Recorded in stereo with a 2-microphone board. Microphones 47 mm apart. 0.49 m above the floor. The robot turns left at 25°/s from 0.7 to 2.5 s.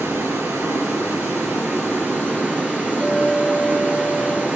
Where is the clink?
85° right, 5 m.